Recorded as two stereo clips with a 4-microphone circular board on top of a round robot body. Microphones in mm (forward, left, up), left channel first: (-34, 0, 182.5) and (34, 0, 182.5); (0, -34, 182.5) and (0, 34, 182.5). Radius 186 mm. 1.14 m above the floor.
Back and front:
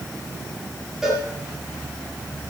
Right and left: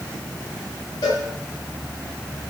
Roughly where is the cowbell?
Right.